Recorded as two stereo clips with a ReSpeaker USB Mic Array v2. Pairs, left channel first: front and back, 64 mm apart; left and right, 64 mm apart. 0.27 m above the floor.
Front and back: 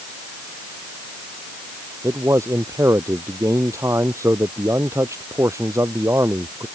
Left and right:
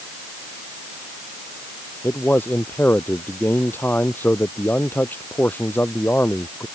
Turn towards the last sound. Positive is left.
turn(degrees=145)